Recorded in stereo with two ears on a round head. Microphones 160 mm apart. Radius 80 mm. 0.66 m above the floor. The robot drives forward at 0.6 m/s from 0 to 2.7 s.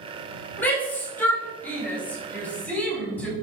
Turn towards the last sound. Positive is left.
turn(degrees=10)  # may be behind; listen again after turning